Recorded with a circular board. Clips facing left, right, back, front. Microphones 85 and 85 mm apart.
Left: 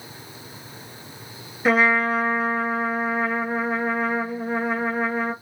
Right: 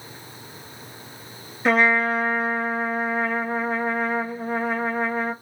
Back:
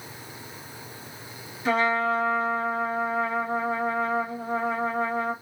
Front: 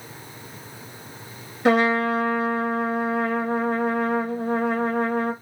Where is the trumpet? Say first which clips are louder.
Even, front 4 dB; 5° left, 0.5 m.